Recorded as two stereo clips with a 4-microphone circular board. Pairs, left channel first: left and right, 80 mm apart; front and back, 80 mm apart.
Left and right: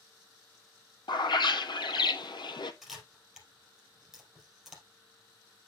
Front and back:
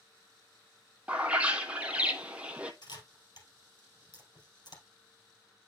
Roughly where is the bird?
Left.